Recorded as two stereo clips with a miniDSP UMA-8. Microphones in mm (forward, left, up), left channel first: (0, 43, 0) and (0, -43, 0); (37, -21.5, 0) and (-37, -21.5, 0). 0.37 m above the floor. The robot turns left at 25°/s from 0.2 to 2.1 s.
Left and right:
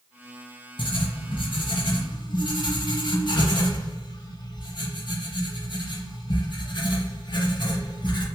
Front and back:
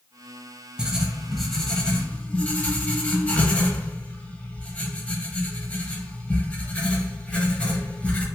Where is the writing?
100° left, 0.6 m; by 8.2 s 70° left, 0.6 m.